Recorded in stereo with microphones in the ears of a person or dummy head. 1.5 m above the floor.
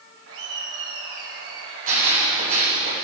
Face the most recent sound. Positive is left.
turn(degrees=-45)  # may be behind; listen again after turning